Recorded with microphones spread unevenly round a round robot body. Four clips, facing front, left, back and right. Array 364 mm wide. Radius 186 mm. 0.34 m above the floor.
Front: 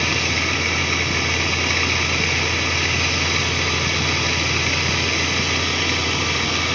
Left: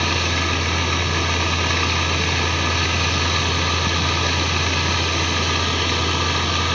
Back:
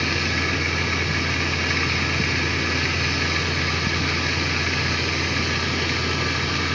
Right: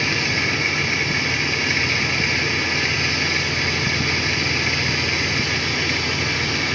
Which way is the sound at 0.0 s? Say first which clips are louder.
Left 1 dB, front 1 dB; 75° left.